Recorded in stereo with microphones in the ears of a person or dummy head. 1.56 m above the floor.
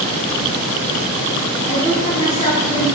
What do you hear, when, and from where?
1.7 s a woman speaking: 40° left (ahead or behind), 2.5 m; by 3.0 s 10° left (ahead or behind), 1.0 m